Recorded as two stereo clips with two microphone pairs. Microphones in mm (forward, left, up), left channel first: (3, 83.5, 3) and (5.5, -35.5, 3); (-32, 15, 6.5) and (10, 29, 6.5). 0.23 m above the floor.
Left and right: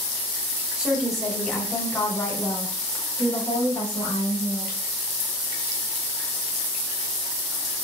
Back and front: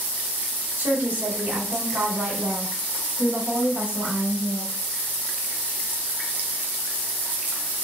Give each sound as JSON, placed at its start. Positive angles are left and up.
{"t": 0.8, "sound": "a woman speaking", "azimuth_deg": -10, "distance_m": 1.5}